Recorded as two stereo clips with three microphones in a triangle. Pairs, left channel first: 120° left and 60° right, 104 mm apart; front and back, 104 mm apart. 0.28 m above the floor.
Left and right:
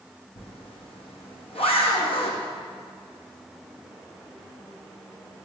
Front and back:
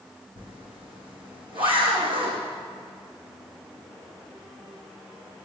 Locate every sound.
0.4 s a zipper: 145° left, 3.5 m